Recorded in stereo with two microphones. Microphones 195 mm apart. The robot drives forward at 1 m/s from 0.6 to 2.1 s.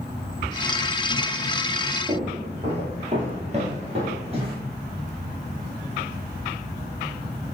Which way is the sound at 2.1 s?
30° right (ahead or behind).